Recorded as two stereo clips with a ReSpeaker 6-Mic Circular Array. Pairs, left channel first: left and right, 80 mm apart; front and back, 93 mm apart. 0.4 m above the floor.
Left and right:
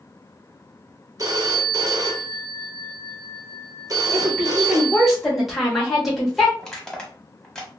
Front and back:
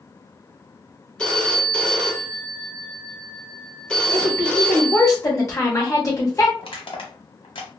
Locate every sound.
1.2 s a phone ringing: 75° right, 0.7 m
4.1 s a woman speaking: 5° right, 1.0 m
6.6 s crushing: 5° left, 0.8 m